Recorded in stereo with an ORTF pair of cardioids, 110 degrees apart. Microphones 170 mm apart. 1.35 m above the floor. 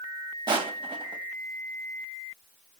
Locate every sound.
0.5 s crushing: 30° right, 1.2 m